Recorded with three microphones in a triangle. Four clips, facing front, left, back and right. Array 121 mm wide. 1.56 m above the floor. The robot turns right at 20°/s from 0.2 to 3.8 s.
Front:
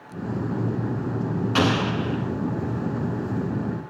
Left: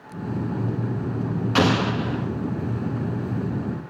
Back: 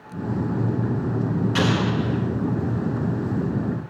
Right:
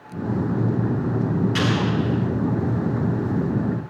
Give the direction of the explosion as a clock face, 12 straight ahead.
10 o'clock.